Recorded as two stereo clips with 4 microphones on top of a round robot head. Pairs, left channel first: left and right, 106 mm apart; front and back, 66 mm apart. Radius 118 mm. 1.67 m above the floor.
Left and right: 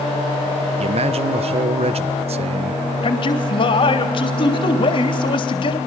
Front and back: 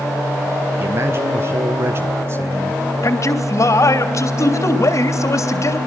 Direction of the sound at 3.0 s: 40° left.